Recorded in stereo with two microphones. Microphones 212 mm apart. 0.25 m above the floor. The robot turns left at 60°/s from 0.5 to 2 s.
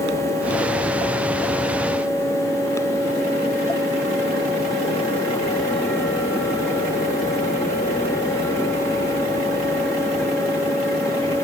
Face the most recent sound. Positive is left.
No sound to turn to.